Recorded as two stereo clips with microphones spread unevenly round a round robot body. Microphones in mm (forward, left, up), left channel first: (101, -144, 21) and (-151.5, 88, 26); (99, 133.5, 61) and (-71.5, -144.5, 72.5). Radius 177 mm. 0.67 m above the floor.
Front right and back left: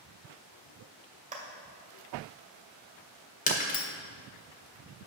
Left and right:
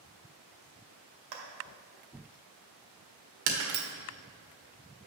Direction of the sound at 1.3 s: 155° right.